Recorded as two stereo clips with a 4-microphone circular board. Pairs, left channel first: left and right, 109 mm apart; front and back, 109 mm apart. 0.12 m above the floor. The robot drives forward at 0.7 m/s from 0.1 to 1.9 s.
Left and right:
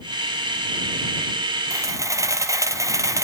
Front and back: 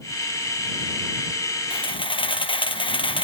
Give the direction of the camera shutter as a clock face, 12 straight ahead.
1 o'clock.